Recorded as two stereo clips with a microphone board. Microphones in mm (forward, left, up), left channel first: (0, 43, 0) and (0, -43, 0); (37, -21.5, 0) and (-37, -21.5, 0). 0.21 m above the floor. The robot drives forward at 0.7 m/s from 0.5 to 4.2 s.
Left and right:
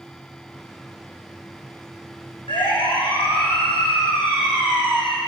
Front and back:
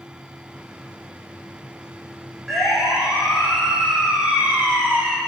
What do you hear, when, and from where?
2.5 s a siren: 90° left, 9.5 m; by 5.2 s 105° left, 5.5 m